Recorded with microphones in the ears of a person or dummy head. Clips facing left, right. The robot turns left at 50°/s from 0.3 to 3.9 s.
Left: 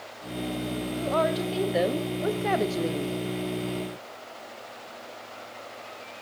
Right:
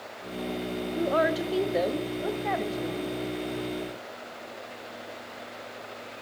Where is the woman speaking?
150° right, 0.6 m; by 3.2 s 95° left, 0.6 m.